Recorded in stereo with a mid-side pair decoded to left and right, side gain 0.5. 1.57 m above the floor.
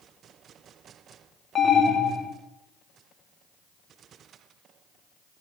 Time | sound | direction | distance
1.6 | an alarm | 40° left | 3 m